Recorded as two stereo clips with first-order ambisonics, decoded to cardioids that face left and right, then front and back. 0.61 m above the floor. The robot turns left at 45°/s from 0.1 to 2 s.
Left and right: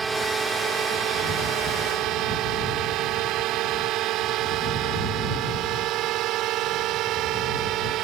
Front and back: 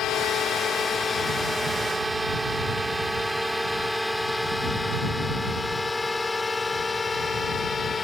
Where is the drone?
25° right; by 8.1 s 65° right.